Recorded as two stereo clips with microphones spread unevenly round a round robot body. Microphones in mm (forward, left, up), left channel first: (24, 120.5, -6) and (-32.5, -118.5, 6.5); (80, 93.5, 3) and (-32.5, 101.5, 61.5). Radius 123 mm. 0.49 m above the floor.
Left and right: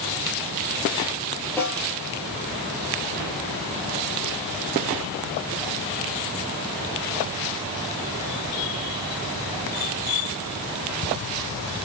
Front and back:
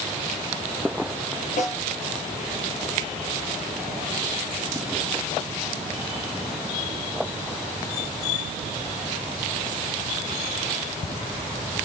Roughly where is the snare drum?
Ahead.